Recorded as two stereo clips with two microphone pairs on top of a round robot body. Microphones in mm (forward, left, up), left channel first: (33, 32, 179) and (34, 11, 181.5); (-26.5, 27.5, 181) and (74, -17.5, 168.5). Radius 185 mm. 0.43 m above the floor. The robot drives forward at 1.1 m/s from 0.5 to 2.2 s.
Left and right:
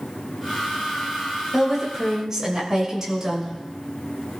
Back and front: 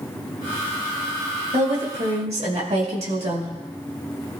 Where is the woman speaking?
20° right, 6.5 m; by 3.5 s 25° right, 6 m.